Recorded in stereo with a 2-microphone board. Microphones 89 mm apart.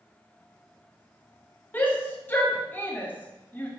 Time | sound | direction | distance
1.7 | a shout | 20° left (ahead or behind) | 1.0 m